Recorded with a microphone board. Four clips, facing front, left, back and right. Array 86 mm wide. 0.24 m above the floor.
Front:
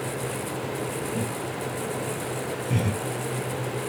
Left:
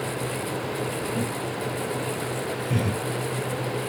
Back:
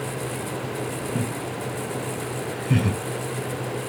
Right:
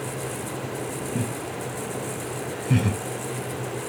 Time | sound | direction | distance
1.1 | laughter | 145° right | 2.5 m